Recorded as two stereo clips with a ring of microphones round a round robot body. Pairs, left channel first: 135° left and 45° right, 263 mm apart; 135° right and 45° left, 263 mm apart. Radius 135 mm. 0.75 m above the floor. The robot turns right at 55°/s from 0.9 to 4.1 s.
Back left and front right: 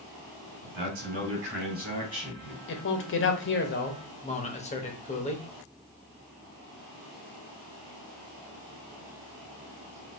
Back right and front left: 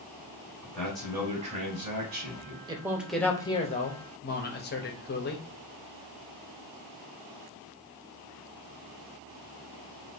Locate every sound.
0.6 s a man speaking: 50° right, 2.5 m; by 2.6 s 40° left, 2.5 m
2.7 s a man speaking: 110° left, 1.0 m; by 5.5 s 170° right, 1.0 m